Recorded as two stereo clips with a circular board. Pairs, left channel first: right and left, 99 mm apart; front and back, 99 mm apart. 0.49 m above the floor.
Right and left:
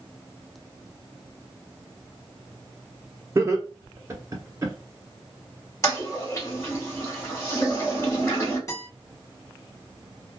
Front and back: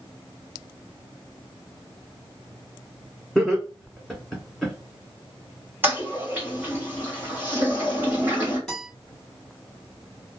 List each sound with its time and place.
3.4 s laughter: 85° left, 1.2 m
5.8 s a toilet flushing: 125° right, 1.5 m
8.7 s a guitar: 80° right, 1.5 m